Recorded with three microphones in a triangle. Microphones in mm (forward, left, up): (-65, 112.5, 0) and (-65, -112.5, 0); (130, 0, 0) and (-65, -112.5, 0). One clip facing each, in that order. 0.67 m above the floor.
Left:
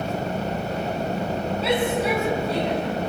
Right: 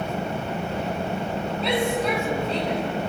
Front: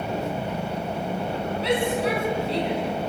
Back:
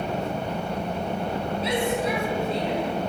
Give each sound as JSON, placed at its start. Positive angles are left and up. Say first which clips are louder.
{"t": 1.6, "sound": "a shout", "louder": "left 1 dB, front 3 dB", "azimuth_deg": 5, "distance_m": 7.5}